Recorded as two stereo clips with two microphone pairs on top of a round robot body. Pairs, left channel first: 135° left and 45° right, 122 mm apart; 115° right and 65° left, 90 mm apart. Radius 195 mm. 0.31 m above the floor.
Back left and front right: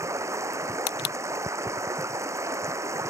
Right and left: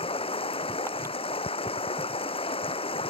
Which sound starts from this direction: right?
Running water, at 0.0 s.